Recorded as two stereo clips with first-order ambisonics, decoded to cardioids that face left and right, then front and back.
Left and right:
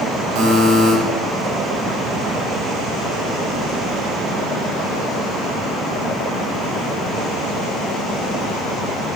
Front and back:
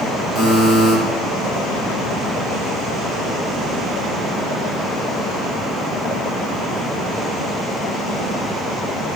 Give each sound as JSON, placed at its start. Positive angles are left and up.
{"t": 0.3, "sound": "a buzzer", "azimuth_deg": -110, "distance_m": 10.0}